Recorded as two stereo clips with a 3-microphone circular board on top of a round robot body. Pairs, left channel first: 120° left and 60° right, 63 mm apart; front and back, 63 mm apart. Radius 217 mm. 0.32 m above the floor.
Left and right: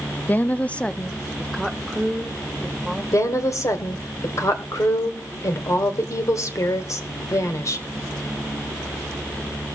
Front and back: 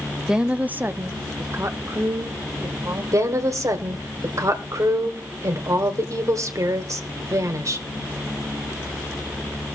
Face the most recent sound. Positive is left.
turn(degrees=150)